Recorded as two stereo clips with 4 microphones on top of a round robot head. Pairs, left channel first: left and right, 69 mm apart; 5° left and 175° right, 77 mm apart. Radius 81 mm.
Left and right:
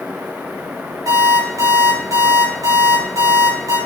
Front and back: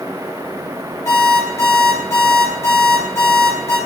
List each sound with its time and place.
1.1 s an alarm clock: 50° right, 3 m